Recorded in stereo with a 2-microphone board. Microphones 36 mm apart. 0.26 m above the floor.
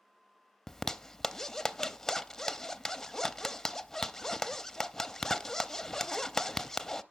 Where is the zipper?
10° left (ahead or behind), 0.5 m.